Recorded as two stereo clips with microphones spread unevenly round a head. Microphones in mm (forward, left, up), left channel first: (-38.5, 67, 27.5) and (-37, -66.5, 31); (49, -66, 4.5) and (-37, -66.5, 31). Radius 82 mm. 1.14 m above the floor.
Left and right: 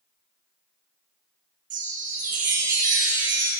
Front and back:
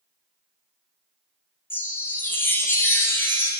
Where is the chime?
60° right, 1.7 m.